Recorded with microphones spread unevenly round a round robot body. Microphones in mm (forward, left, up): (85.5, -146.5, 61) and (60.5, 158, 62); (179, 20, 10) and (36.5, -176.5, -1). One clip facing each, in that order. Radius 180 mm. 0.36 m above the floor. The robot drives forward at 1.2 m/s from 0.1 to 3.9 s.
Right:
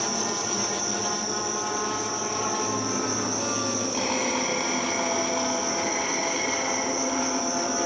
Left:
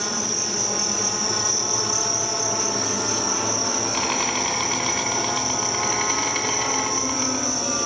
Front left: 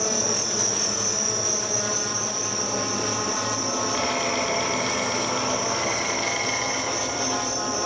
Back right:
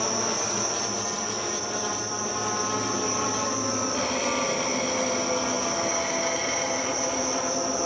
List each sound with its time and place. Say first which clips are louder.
0.0 s an insect: even, front left 2 dB; 35° left, 2.5 m; by 7.9 s 155° left, 3 m